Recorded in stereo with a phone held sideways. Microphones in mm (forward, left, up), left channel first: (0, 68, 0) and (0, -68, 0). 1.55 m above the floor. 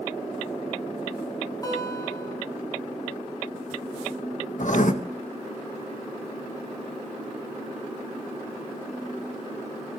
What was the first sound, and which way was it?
A guitar, 25° left (ahead or behind).